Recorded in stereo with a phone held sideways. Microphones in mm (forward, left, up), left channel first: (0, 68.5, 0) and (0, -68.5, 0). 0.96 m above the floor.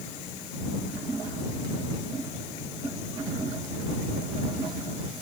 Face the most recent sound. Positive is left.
No sound to turn to.